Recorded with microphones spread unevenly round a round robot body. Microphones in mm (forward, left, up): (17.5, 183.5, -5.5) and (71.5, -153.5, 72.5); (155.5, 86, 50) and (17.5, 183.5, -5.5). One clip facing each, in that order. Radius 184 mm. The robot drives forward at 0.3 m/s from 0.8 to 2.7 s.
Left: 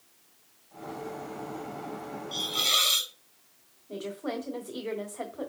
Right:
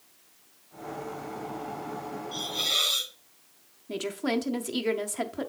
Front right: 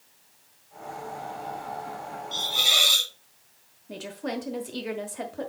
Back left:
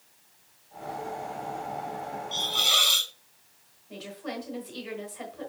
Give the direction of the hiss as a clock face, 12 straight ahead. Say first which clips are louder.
Even, even; 11 o'clock.